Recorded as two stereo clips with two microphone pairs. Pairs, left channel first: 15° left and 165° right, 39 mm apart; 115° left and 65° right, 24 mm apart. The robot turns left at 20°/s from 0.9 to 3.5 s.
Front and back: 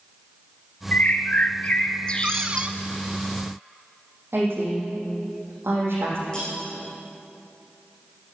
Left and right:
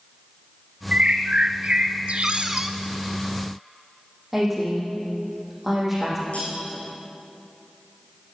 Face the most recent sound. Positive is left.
turn(degrees=85)